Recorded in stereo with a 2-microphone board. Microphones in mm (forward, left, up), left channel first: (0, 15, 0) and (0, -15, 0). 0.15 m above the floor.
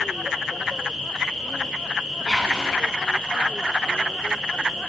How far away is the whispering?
About 1.0 m.